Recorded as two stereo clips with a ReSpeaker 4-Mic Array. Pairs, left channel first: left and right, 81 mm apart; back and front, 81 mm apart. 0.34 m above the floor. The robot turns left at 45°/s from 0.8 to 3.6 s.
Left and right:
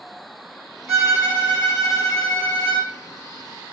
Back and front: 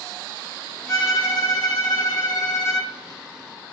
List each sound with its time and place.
0.9 s a violin: 130° right, 1.5 m; by 2.9 s 135° left, 1.5 m